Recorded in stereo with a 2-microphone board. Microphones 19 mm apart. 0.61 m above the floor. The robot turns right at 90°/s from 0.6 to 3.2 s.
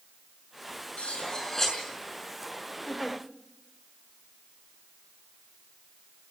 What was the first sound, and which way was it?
Cutlery clinking, 105° left.